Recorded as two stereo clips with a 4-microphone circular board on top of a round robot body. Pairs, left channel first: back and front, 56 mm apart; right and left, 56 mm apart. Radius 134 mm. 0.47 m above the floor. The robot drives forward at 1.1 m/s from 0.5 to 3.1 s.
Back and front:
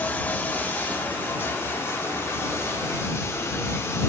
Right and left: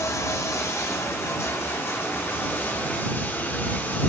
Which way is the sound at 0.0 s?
125° right.